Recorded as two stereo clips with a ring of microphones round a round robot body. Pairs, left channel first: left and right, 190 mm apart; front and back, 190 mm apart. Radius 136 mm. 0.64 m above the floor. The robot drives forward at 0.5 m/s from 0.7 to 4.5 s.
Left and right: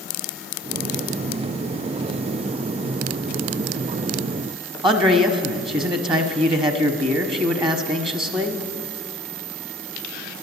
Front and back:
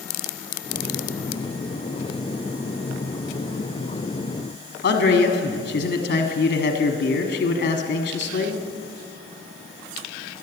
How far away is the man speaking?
About 0.9 m.